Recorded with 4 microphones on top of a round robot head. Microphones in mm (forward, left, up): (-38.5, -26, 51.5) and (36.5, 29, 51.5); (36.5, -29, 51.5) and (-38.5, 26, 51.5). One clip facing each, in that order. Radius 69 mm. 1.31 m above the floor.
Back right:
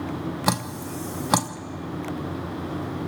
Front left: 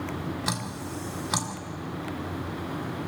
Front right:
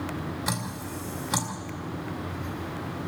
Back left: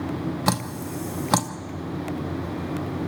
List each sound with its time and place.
0.5 s dripping: 175° left, 0.9 m